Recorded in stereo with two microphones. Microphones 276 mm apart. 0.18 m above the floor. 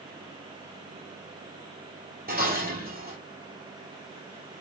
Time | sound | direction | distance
2.3 | dishes clattering | 35° right (ahead or behind) | 3 m